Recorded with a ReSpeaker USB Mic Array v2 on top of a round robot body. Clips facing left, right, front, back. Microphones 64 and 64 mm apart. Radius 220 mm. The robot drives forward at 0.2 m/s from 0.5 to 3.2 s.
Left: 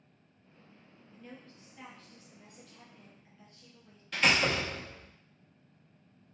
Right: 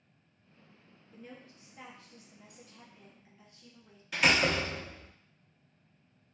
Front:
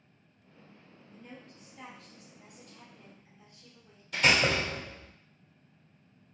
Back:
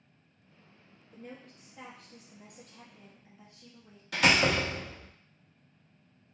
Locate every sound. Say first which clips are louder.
1.1 s a woman speaking: right 1 dB, back 3 dB; 165° right, 0.9 m; by 4.0 s 170° right, 1.3 m
4.1 s a door slam: right 1 dB, back 1 dB; 175° right, 0.7 m